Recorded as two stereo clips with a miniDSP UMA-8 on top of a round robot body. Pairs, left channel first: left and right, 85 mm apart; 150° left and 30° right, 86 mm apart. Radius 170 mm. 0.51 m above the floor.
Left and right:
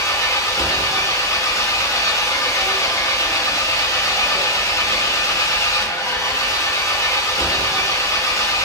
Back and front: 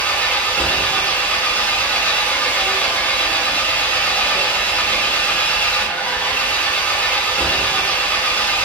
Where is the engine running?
90° left, 1.0 m.